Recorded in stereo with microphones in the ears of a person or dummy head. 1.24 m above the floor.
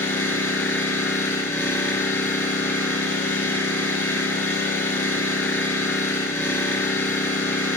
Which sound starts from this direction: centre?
An engine running, at 0.0 s.